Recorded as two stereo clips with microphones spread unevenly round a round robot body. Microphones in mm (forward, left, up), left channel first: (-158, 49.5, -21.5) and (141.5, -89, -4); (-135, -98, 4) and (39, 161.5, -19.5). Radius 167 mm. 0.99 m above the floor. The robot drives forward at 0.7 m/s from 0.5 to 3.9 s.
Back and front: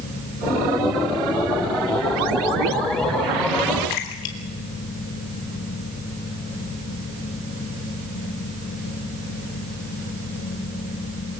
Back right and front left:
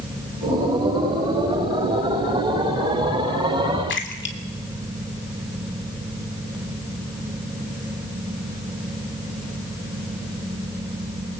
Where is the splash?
Straight behind, 3 m.